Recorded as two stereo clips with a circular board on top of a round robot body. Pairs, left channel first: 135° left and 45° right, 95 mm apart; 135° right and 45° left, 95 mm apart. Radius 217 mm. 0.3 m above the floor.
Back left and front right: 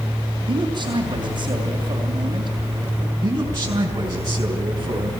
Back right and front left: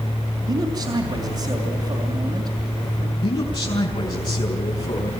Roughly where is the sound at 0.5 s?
Ahead.